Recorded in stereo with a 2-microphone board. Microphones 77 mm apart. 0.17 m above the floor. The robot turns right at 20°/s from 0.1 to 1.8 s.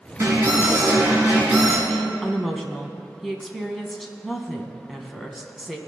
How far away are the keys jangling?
No keys jangling in this recording.